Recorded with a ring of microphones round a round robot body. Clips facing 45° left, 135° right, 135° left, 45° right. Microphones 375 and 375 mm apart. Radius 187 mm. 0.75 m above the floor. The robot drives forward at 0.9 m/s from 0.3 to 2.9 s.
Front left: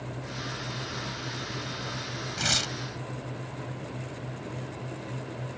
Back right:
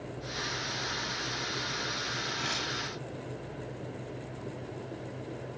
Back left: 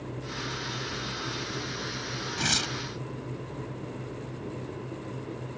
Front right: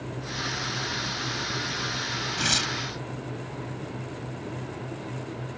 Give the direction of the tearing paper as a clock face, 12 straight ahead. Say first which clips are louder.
Front left 3 dB, front right 1 dB; 10 o'clock.